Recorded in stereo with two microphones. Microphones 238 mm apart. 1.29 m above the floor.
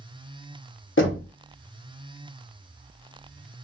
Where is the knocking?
55° left (ahead or behind), 0.9 m.